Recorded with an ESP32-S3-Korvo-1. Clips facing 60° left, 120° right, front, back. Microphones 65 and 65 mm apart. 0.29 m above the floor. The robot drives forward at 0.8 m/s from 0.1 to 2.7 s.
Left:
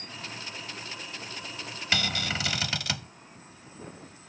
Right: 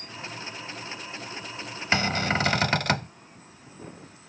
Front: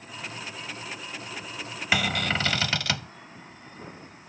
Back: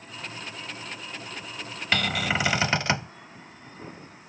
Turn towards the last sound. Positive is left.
turn(degrees=-125)